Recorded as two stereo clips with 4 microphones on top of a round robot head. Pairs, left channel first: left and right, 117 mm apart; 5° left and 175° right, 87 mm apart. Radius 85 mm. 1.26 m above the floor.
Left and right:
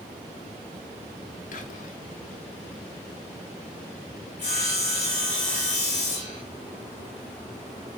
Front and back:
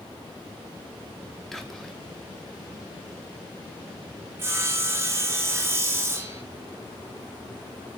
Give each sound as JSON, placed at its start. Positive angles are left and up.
{"t": 1.5, "sound": "whispering", "azimuth_deg": 90, "distance_m": 1.2}
{"t": 4.4, "sound": "sawing", "azimuth_deg": 130, "distance_m": 1.5}